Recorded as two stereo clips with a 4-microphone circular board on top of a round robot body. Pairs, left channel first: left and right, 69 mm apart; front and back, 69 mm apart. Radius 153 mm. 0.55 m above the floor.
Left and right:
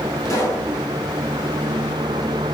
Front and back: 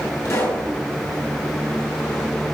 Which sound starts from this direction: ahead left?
A pop, at 0.2 s.